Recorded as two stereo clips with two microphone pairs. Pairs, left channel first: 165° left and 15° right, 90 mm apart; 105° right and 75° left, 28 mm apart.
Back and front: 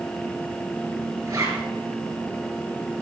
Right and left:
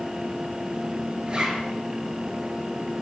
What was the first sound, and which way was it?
A zipper, 25° left.